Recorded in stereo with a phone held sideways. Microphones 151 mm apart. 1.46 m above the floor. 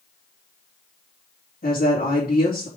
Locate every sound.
1.6 s a woman speaking: 75° left (ahead or behind), 3 m